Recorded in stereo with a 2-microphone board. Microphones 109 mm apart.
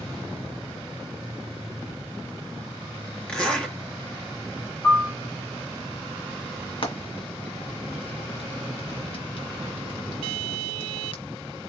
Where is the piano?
20° left (ahead or behind), 1.1 m.